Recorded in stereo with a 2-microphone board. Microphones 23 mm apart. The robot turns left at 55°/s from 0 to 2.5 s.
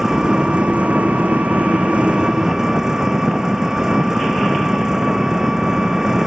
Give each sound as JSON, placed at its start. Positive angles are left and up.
{"t": 0.0, "sound": "an engine running", "azimuth_deg": -15}